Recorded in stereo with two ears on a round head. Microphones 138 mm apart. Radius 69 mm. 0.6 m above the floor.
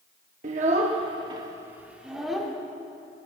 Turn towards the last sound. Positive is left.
turn(degrees=0)  # may be behind; listen again after turning